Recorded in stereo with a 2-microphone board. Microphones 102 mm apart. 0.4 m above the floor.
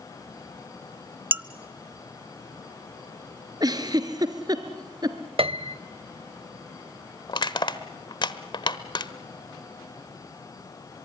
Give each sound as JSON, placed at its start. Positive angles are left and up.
{"t": 1.3, "sound": "dishes clattering", "side_deg": -20, "distance_m": 0.6}
{"t": 3.6, "sound": "a giggle", "side_deg": -40, "distance_m": 1.5}
{"t": 5.4, "sound": "a piano", "side_deg": -65, "distance_m": 0.6}
{"t": 7.3, "sound": "crushing", "side_deg": 50, "distance_m": 1.1}